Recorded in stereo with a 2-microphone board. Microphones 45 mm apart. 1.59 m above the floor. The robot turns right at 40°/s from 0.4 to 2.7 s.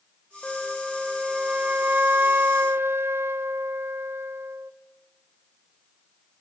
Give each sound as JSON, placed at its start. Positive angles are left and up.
{"t": 0.4, "sound": "a flute", "azimuth_deg": 160, "distance_m": 1.0}